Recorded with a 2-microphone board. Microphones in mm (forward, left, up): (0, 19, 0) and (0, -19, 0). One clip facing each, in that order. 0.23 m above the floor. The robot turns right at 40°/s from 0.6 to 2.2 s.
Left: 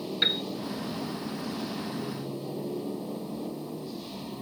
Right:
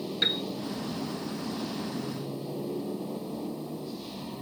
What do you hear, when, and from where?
0.2 s a piano: 15° left (ahead or behind)